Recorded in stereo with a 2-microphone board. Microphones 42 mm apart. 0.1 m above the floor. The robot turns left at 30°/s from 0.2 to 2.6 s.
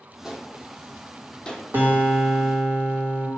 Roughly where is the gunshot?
Centre.